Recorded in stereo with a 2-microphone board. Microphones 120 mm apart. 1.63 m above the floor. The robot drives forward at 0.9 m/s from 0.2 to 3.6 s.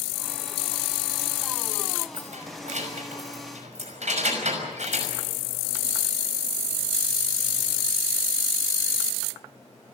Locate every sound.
2.1 s keys jangling: 80° right, 5.5 m; by 5.1 s 70° right (ahead or behind), 6 m